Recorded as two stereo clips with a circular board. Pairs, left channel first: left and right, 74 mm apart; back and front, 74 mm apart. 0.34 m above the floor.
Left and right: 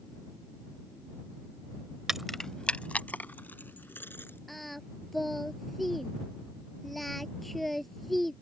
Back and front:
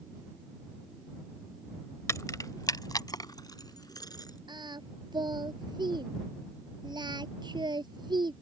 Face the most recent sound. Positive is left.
turn(degrees=0)